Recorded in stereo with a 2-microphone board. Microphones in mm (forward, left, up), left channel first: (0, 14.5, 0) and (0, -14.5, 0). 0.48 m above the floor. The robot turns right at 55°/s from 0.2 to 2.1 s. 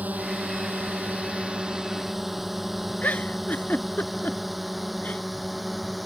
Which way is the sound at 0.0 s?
65° right (ahead or behind).